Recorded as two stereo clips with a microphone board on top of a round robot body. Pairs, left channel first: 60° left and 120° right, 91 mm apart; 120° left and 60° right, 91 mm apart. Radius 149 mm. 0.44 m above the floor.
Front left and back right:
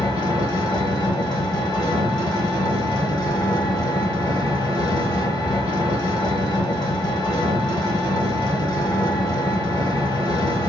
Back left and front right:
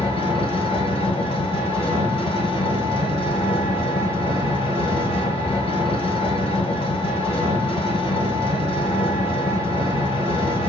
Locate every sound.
0.0 s an engine running: 105° left, 0.9 m